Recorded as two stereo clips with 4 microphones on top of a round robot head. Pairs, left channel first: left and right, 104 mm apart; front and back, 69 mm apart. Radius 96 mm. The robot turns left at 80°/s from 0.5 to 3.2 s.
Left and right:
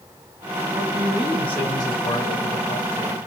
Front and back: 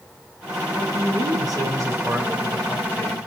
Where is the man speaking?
135° right, 5.5 m; by 3.3 s 30° left, 5.5 m.